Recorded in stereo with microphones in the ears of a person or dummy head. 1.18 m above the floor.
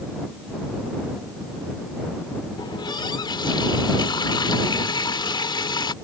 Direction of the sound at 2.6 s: 25° left (ahead or behind).